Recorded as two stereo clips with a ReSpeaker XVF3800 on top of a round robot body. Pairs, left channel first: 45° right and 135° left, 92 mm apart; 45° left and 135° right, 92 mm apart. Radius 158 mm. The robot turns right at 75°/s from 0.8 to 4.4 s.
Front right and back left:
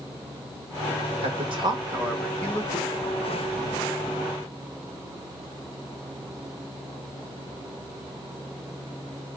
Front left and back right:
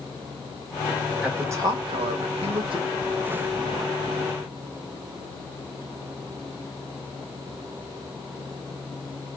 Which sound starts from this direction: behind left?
A man speaking, at 1.2 s.